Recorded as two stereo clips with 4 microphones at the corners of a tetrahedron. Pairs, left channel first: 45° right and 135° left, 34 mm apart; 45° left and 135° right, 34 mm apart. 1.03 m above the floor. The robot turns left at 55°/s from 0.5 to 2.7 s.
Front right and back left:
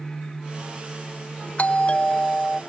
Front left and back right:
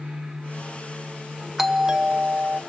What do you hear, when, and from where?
1.6 s a doorbell: 55° right, 1.3 m; by 2.6 s 115° right, 1.3 m